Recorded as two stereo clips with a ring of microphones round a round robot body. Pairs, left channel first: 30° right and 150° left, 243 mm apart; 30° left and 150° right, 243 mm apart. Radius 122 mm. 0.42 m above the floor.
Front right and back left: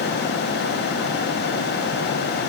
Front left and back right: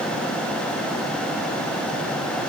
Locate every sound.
Only background noise.